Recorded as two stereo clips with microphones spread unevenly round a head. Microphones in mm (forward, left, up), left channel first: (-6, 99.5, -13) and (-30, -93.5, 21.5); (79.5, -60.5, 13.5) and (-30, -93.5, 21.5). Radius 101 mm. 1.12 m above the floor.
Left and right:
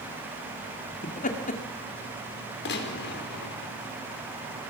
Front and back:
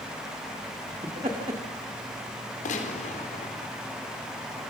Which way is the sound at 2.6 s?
45° left.